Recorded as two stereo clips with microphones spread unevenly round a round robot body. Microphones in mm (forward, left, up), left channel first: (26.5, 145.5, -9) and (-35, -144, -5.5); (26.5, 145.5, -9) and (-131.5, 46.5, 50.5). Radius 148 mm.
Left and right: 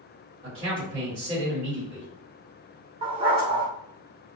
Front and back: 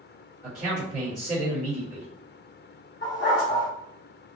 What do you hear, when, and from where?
0.4 s a man speaking: 140° right, 1.3 m
3.0 s a dog barking: 30° right, 0.6 m